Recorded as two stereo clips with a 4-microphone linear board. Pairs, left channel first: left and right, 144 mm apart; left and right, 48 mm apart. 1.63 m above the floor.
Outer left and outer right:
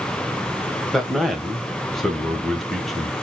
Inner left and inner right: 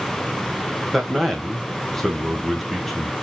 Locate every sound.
0.9 s a man speaking: centre (ahead or behind), 1.5 m